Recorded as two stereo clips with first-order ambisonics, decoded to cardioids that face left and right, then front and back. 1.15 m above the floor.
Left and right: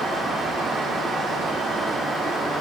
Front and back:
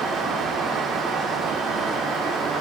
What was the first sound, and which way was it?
Only background noise.